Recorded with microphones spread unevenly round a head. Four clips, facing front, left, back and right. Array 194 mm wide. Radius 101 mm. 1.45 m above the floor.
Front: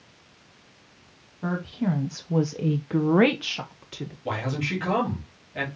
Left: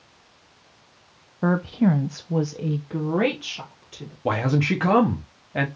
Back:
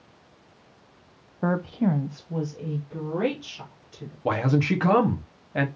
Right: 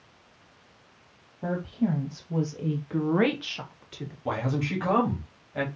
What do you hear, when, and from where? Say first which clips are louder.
1.4 s a woman speaking: left 7 dB, back 3 dB; 100° left, 0.6 m; by 4.2 s straight ahead, 1.3 m
4.2 s a man speaking: left 6 dB, back 7 dB; 105° left, 1.2 m